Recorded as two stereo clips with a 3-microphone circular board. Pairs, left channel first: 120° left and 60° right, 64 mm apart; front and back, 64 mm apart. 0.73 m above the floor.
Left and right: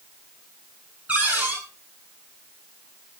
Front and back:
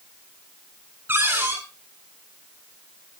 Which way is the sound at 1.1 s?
125° right.